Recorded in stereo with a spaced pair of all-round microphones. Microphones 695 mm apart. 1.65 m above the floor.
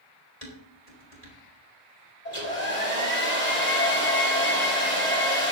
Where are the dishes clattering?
60° left (ahead or behind), 3.5 m.